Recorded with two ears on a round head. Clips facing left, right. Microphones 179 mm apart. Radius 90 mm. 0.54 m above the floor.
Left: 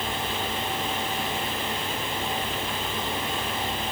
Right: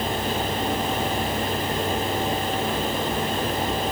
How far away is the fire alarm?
I don't hear a fire alarm.